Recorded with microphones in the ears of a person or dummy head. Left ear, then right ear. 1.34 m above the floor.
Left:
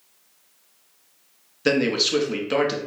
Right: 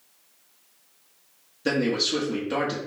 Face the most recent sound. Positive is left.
turn(degrees=20)  # may be behind; listen again after turning